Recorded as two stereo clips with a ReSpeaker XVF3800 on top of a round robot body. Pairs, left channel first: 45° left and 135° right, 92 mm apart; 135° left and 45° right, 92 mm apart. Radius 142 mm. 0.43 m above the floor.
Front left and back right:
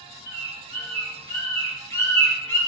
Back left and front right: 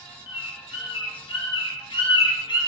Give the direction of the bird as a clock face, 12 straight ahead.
8 o'clock.